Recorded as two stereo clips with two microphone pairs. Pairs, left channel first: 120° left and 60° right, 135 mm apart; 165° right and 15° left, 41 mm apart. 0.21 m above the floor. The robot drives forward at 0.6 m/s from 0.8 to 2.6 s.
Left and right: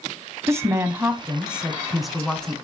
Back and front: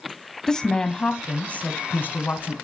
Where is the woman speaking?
115° right, 1.0 m; by 2.5 s 160° right, 1.6 m.